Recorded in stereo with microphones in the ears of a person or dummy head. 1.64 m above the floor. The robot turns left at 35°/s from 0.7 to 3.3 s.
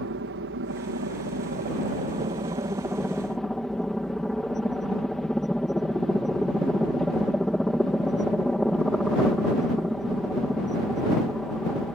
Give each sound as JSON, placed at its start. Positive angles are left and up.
{"t": 0.0, "sound": "a helicopter", "azimuth_deg": -90}